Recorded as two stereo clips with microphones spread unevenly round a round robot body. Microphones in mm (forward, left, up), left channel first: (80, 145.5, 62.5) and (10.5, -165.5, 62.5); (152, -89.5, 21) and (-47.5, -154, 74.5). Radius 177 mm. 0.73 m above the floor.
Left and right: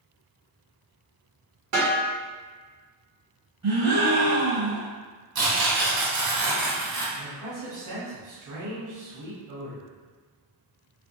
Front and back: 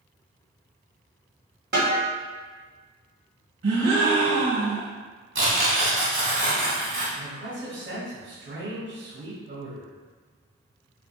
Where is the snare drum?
115° right, 1.6 m.